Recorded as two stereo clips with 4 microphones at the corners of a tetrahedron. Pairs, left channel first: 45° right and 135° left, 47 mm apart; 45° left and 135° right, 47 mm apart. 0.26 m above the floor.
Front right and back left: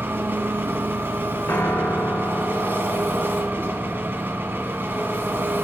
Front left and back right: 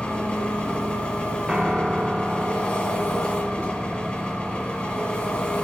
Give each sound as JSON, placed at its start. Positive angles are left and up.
{"t": 0.0, "sound": "an engine running", "azimuth_deg": 105, "distance_m": 1.4}
{"t": 1.5, "sound": "a piano", "azimuth_deg": -55, "distance_m": 0.8}